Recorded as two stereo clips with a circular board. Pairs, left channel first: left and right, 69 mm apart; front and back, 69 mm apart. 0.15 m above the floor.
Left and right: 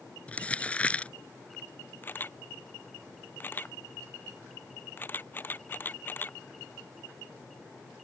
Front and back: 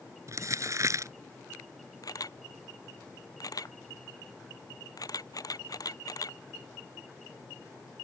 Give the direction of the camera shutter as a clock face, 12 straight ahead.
11 o'clock.